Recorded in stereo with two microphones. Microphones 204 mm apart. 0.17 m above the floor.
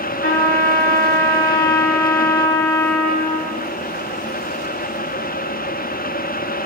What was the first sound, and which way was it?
A trumpet, 80° left.